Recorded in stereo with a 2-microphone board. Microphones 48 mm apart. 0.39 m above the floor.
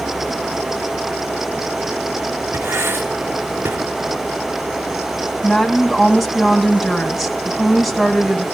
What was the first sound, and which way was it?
Writing, 65° right (ahead or behind).